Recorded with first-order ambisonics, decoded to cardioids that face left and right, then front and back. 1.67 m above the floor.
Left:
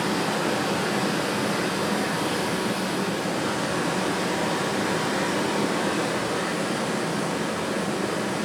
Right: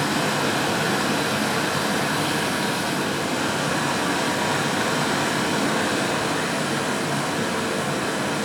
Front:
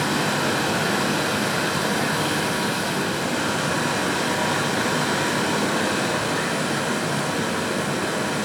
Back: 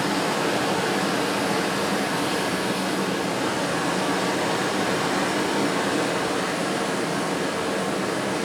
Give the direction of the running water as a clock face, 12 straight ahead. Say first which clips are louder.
Right 3 dB, front 1 dB; 2 o'clock.